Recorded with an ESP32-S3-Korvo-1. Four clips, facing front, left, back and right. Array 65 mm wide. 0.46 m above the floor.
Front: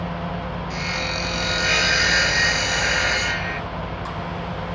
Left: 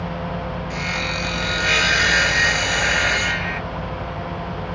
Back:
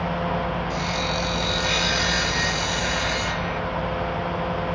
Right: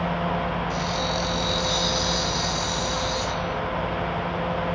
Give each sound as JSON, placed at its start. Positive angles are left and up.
{"t": 0.7, "sound": "sawing", "azimuth_deg": 55}